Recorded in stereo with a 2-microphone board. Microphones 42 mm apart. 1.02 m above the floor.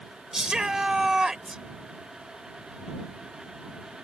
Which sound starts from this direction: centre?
A shout, at 0.3 s.